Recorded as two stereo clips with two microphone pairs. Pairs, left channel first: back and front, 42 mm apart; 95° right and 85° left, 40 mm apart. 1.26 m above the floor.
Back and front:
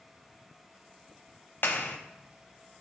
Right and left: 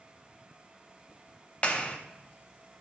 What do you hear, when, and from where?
1.6 s a clap: 155° right, 0.8 m